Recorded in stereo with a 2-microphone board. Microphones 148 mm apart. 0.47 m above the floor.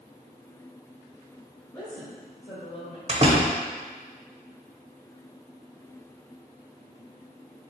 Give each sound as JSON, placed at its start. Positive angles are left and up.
{"t": 1.7, "sound": "a woman speaking", "side_deg": 25, "distance_m": 1.8}
{"t": 3.1, "sound": "a door slam", "side_deg": -45, "distance_m": 1.0}